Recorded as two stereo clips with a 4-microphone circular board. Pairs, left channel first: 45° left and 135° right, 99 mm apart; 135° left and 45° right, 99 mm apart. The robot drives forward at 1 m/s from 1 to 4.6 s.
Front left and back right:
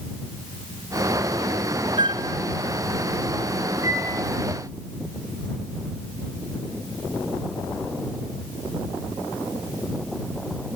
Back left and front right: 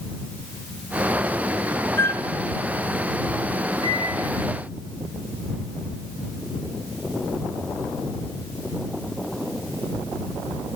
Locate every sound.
2.0 s a flute: 160° right, 1.0 m; by 2.2 s 165° right, 1.2 m
3.8 s a microwave: 75° right, 9 m